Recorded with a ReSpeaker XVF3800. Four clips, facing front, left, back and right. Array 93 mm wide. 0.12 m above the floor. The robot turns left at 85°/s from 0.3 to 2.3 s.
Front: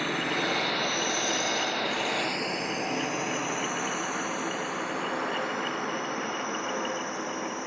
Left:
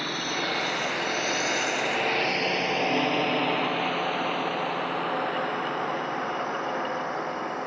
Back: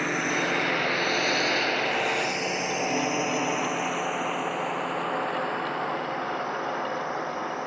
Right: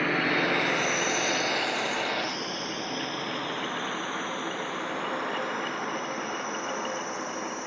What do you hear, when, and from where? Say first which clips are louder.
0.0 s a drone: right 5 dB, back 2 dB; 125° right; by 7.7 s 135° left